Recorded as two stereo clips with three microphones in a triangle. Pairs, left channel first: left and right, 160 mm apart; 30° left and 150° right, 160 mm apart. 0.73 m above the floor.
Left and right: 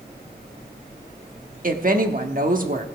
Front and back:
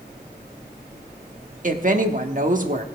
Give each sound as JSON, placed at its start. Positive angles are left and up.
{"t": 1.6, "sound": "a woman speaking", "azimuth_deg": -115, "distance_m": 1.2}